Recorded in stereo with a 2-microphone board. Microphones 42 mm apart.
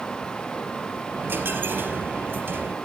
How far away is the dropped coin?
About 3.5 m.